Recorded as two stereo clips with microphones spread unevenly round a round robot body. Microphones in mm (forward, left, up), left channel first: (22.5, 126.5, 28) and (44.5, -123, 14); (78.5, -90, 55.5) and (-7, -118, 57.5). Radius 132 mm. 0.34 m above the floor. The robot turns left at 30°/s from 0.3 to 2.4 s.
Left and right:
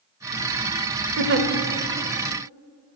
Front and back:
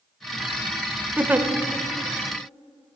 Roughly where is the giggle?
Right.